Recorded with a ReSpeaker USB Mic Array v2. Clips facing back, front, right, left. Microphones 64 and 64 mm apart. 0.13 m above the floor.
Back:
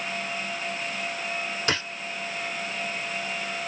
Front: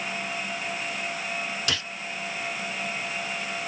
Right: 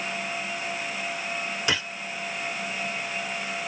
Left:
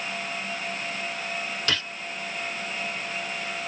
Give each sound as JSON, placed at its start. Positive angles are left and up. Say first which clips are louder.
{"t": 1.7, "sound": "a gunshot", "louder": "back 6 dB, right 1 dB", "azimuth_deg": -150, "distance_m": 0.6}